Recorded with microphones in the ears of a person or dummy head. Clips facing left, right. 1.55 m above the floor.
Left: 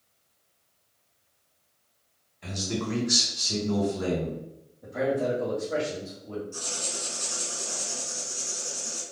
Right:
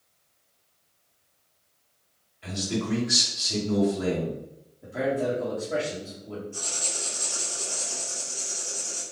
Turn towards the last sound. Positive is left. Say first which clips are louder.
# even
turn(degrees=60)  # may be behind; listen again after turning